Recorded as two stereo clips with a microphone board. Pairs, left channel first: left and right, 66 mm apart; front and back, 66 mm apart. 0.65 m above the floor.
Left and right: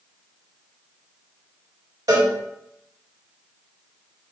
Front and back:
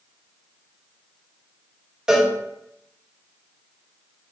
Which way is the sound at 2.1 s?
105° right.